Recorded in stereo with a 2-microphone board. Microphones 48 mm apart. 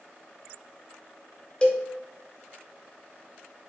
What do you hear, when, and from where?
1.6 s a cowbell: 20° left (ahead or behind), 0.5 m